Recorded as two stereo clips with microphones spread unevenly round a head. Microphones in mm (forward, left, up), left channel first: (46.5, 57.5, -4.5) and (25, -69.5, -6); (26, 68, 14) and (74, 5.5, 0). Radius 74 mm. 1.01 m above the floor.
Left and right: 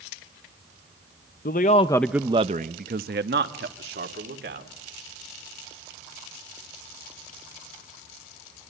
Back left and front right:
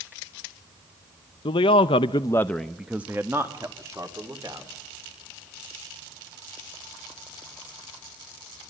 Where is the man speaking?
110° left, 0.8 m; by 4.7 s 115° right, 3 m.